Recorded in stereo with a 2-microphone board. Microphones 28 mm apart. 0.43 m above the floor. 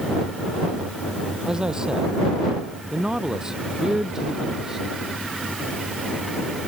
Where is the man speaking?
30° right (ahead or behind); by 4.9 s 20° right (ahead or behind).